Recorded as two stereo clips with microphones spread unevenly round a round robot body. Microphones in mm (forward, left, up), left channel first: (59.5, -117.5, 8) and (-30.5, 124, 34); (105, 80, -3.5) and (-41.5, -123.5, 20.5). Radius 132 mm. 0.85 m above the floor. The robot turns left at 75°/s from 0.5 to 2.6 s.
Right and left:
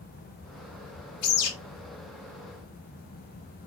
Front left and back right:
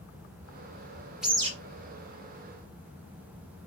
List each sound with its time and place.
1.2 s a bird: 40° right, 0.8 m; by 1.5 s 60° right, 0.8 m